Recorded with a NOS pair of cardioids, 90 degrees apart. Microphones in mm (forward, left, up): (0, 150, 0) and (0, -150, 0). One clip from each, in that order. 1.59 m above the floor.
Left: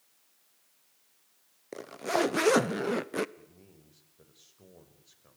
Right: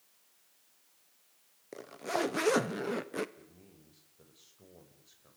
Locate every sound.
1.7 s a zipper: 25° left, 0.9 m
3.4 s a man speaking: 15° left, 6 m